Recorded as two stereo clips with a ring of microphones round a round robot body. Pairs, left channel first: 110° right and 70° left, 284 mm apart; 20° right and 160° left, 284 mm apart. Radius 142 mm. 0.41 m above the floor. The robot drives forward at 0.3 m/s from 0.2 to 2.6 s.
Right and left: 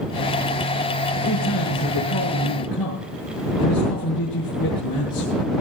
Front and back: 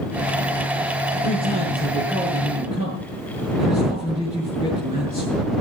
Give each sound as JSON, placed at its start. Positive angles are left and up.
{"t": 1.2, "sound": "a man speaking", "azimuth_deg": -130, "distance_m": 7.5}